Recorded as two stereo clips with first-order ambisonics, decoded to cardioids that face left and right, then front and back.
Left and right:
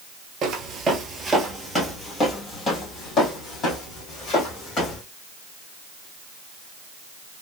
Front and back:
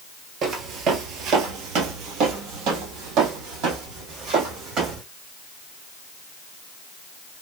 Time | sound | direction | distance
0.4 | footsteps | 135° right | 0.8 m